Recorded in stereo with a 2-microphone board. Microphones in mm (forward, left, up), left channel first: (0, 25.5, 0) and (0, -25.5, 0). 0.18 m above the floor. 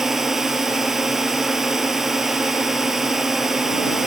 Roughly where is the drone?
Centre.